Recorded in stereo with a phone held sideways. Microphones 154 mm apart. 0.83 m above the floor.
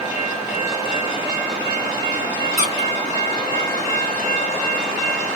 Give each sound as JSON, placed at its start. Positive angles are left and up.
{"t": 2.6, "sound": "a squeak", "side_deg": -50, "distance_m": 1.0}